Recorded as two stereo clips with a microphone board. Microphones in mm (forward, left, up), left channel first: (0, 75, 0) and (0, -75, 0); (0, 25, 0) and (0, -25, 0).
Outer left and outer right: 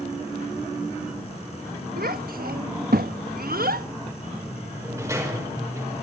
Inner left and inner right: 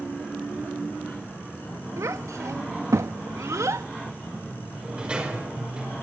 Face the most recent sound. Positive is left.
turn(degrees=-20)  # may be behind; listen again after turning